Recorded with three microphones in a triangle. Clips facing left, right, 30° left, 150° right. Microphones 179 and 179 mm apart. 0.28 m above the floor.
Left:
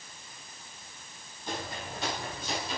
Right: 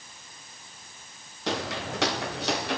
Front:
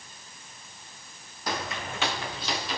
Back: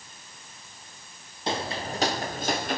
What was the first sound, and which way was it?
Footsteps, 85° right.